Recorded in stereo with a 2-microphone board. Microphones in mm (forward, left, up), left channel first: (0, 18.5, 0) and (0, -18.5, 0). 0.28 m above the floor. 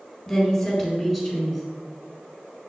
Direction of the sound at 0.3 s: 10° left (ahead or behind).